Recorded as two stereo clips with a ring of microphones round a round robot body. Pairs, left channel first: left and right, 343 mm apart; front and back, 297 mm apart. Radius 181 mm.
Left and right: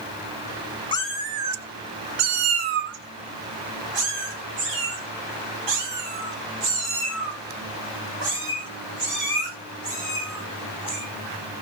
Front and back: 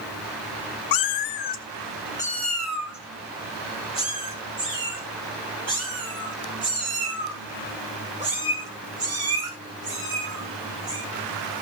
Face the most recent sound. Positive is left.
turn(degrees=-110)